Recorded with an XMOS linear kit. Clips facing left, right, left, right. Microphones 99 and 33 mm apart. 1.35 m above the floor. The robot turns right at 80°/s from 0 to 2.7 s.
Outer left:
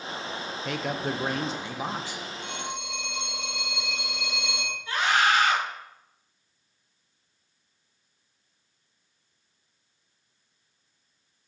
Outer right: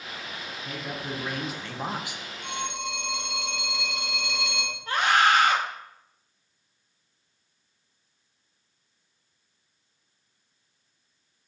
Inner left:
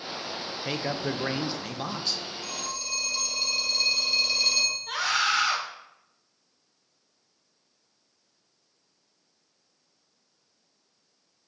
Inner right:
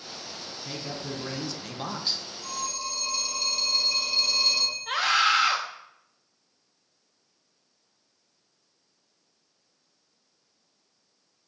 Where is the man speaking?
85° left, 0.9 m; by 2.2 s 150° right, 0.9 m.